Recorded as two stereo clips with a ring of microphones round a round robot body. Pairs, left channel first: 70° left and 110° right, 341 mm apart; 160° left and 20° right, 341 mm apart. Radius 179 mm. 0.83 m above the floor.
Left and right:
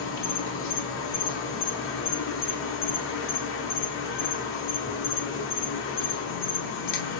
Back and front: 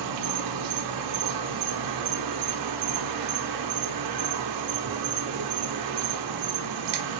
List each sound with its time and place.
0.0 s an insect: 10° left, 0.7 m